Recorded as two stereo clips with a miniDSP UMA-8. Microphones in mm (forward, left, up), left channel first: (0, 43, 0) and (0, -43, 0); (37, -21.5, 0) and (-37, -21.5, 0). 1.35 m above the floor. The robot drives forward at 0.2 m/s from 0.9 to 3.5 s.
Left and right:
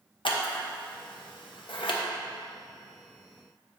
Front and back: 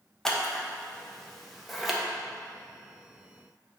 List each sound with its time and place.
0.2 s scissors: 85° left, 1.1 m; by 2.0 s 95° left, 1.1 m